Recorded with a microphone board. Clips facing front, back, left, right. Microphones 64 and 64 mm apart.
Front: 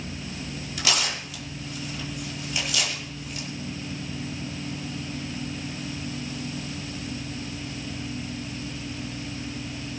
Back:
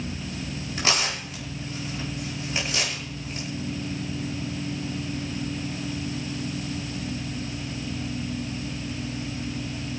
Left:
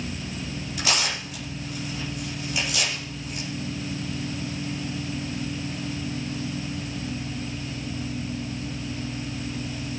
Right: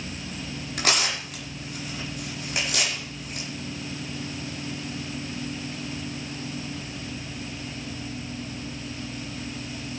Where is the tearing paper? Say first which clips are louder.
Back 1 dB, right 1 dB; 125° right, 5 m.